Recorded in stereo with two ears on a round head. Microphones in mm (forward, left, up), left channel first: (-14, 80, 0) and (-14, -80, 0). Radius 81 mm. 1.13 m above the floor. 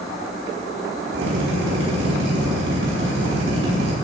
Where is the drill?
60° right (ahead or behind), 6 m.